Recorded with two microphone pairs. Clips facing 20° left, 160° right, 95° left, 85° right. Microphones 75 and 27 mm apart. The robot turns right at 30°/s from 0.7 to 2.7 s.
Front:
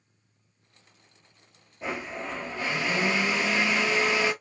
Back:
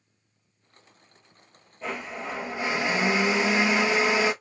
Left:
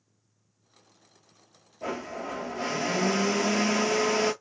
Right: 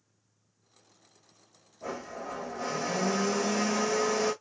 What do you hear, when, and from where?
1.8 s a blender: 100° left, 1.2 m; by 4.3 s 130° left, 1.2 m